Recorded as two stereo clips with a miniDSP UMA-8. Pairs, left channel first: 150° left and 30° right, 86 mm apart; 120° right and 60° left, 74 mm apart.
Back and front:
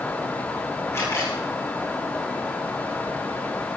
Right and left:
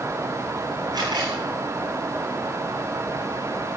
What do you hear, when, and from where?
0.9 s a camera shutter: 90° left, 8.5 m